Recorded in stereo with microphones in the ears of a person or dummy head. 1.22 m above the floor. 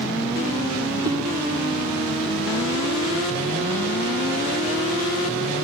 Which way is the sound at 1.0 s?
25° right (ahead or behind).